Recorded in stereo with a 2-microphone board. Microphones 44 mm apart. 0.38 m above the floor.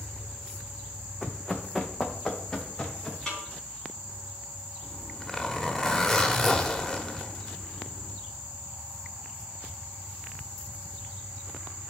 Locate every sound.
1.2 s running footsteps: centre (ahead or behind), 1.1 m; by 3.2 s 10° left (ahead or behind), 2.5 m
3.3 s a snare drum: 15° left (ahead or behind), 3.5 m
4.8 s a zipper: 10° left (ahead or behind), 1.3 m